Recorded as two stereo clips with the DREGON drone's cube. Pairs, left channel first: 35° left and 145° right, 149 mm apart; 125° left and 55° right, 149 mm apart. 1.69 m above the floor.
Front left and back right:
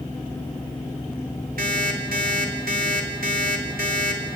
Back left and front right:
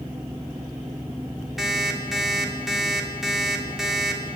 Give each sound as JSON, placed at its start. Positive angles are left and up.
{"t": 1.6, "sound": "an alarm clock", "azimuth_deg": -145, "distance_m": 3.0}